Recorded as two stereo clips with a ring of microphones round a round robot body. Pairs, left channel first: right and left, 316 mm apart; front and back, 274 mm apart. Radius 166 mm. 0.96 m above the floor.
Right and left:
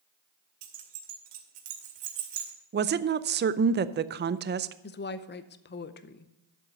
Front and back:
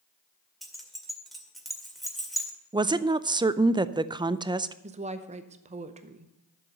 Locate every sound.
0.6 s keys jangling: 90° left, 2 m
2.7 s a woman speaking: 115° left, 0.5 m
4.8 s a woman speaking: 125° right, 0.7 m